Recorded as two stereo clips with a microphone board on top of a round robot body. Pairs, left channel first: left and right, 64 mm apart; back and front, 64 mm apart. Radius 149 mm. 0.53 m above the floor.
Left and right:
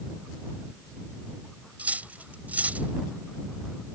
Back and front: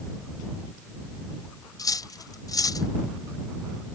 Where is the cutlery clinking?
155° right.